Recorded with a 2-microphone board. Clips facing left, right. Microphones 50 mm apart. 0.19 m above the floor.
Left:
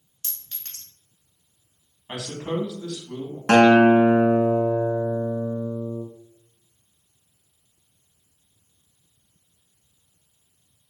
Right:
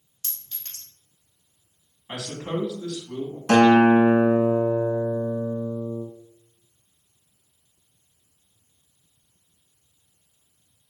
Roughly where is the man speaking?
Centre.